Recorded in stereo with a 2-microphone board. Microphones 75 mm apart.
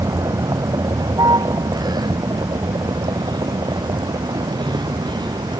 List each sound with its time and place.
0.0 s a vehicle: 55° right (ahead or behind); by 5.6 s 75° right (ahead or behind)